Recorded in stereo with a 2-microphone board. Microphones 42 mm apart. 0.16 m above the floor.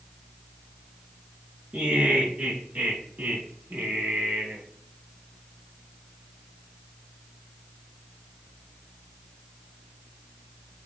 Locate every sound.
1.7 s laughter: 30° right (ahead or behind), 1.9 m; by 4.6 s 55° right (ahead or behind), 1.6 m